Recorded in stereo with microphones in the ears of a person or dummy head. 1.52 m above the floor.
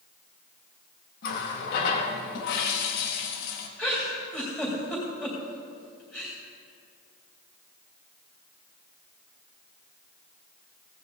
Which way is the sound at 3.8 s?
10° left (ahead or behind).